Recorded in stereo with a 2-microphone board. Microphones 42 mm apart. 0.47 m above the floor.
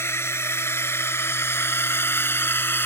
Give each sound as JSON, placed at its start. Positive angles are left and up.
{"t": 0.0, "sound": "a drone", "side_deg": 70}